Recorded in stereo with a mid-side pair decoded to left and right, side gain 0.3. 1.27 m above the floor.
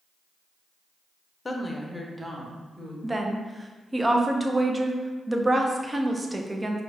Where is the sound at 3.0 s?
25° right, 0.6 m.